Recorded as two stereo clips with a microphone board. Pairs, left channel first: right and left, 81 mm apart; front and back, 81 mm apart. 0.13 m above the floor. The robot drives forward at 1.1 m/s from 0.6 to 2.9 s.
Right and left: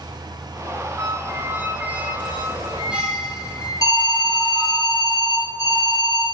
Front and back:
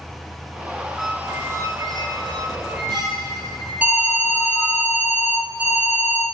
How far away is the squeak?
About 0.7 m.